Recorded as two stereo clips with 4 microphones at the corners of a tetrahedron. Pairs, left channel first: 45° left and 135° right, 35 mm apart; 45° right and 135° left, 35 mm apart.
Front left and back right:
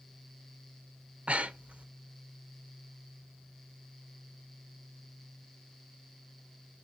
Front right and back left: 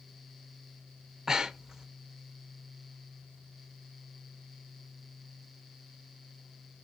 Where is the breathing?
150° right, 0.8 m.